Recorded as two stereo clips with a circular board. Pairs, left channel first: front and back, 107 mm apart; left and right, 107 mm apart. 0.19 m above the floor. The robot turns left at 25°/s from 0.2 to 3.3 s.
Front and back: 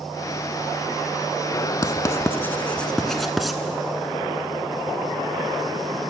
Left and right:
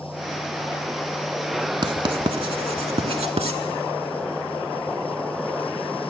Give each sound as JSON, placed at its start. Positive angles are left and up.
{"t": 1.8, "sound": "writing", "azimuth_deg": -55, "distance_m": 0.6}